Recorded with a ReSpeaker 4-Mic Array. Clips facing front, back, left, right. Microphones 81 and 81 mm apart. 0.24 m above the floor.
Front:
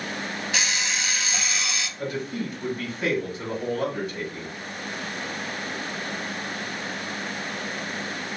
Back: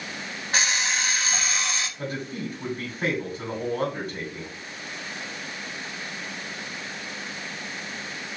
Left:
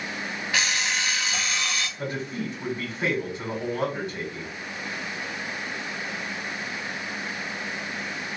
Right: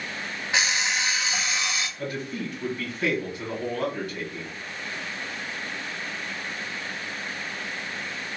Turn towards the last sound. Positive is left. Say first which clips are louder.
# front 2 dB, left 1 dB
turn(degrees=145)